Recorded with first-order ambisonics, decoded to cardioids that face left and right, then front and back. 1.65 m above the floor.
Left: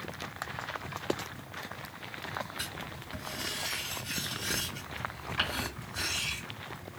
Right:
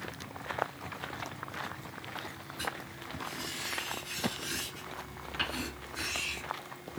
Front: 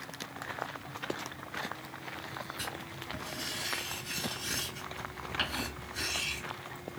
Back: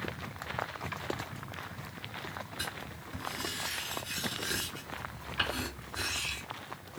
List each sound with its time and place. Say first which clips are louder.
2.6 s writing: right 1 dB, even; 55° left, 1.6 m